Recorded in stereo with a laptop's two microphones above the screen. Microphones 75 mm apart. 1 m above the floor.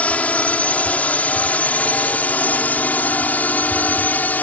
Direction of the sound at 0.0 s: 20° left (ahead or behind).